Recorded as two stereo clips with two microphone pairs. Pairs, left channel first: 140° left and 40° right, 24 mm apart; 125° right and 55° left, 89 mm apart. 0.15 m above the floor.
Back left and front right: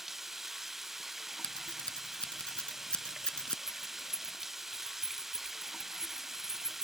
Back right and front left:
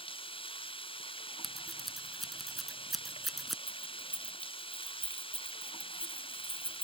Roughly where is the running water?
Behind right.